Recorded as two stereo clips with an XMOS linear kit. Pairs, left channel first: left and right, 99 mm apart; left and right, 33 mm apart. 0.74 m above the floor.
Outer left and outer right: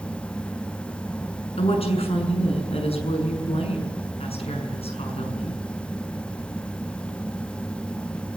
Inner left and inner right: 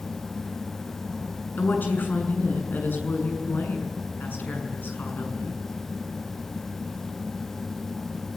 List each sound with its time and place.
1.6 s a woman speaking: 85° left, 6.5 m